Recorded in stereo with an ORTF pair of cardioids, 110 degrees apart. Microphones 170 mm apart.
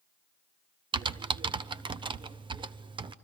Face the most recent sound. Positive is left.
turn(degrees=-30)